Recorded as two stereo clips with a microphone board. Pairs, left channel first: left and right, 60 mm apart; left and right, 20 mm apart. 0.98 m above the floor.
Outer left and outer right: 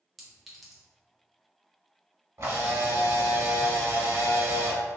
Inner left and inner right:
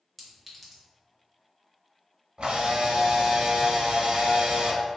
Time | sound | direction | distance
0.2 | a clink | 5° left (ahead or behind) | 0.8 m
2.4 | a camera shutter | 60° right (ahead or behind) | 1.0 m